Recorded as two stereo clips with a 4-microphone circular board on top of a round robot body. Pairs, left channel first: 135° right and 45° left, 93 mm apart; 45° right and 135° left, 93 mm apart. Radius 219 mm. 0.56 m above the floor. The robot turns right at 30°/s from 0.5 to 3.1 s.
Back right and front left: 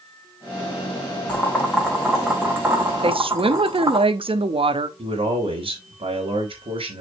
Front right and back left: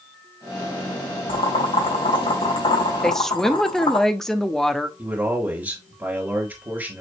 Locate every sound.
1.3 s boiling: 65° right, 3.5 m; by 4.0 s 15° right, 3.5 m
3.0 s a woman speaking: 40° left, 1.2 m
5.0 s a man speaking: 70° left, 3.5 m